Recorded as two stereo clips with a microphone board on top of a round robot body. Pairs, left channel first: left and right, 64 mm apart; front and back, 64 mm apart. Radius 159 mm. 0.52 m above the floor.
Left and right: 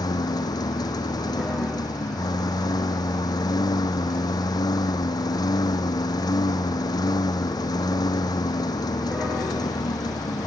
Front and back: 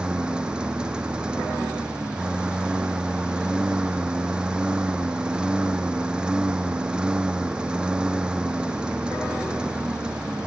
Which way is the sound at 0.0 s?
105° left.